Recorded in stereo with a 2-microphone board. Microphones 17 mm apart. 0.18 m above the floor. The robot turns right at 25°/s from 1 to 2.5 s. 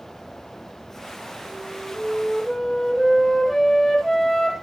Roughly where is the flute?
Centre.